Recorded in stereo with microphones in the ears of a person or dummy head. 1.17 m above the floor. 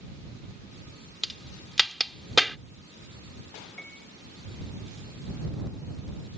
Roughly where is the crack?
Centre.